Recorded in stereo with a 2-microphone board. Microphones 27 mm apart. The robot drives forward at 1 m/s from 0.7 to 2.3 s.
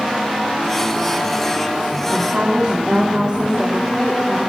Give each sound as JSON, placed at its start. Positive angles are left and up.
{"t": 2.1, "sound": "a woman speaking", "side_deg": -35, "distance_m": 2.0}